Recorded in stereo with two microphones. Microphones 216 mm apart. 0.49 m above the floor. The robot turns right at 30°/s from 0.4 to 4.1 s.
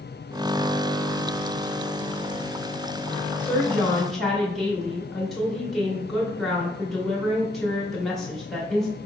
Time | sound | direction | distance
3.4 | a woman speaking | 10° left (ahead or behind) | 0.9 m